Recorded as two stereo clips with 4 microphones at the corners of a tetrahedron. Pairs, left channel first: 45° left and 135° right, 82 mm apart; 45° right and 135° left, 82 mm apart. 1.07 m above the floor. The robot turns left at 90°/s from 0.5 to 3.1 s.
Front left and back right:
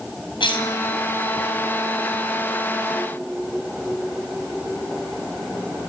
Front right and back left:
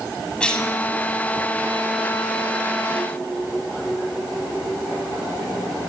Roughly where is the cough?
Ahead left.